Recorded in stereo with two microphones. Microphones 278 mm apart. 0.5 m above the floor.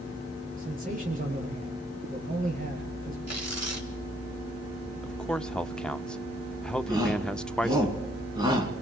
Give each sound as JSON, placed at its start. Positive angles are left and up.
{"t": 0.6, "sound": "a man speaking", "side_deg": -30, "distance_m": 9.5}
{"t": 3.3, "sound": "tearing paper", "side_deg": -70, "distance_m": 3.5}
{"t": 5.0, "sound": "a man speaking", "side_deg": 5, "distance_m": 0.7}
{"t": 6.9, "sound": "a shout", "side_deg": -15, "distance_m": 5.0}